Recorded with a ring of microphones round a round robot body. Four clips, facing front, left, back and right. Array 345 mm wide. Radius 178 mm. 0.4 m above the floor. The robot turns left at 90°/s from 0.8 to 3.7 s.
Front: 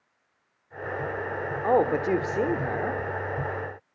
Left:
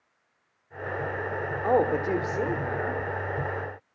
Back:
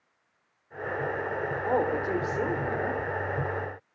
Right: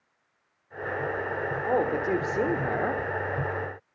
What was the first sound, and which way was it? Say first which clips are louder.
A man speaking: left 3 dB, front 5 dB; 35° left.